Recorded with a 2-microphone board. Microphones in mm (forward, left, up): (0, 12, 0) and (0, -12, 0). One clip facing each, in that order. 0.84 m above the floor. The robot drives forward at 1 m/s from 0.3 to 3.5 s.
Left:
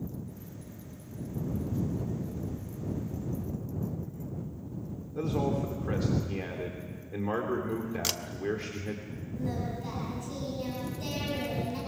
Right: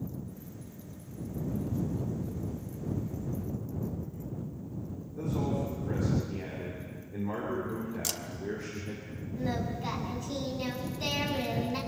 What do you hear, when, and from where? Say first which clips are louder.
5.2 s a man speaking: left 2 dB; 70° left (ahead or behind), 3 m
8.0 s a camera shutter: left 5 dB; 30° left (ahead or behind), 0.8 m
9.4 s singing: right 2 dB; 35° right (ahead or behind), 7 m